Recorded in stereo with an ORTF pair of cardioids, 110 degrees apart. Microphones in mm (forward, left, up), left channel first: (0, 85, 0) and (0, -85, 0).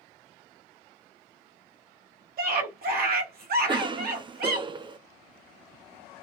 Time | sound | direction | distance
2.4 | a scream | 60° right | 1.7 m
3.7 | a cough | 25° right | 0.5 m